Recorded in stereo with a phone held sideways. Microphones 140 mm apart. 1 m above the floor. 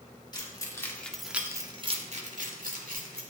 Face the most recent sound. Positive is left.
turn(degrees=-85)